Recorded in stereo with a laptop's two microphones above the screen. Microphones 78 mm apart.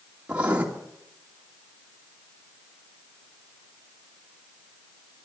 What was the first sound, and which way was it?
Writing, 20° right (ahead or behind).